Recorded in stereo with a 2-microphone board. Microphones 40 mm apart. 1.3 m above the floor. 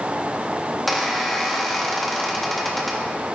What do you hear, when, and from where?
0.9 s a squeak: centre (ahead or behind), 1.4 m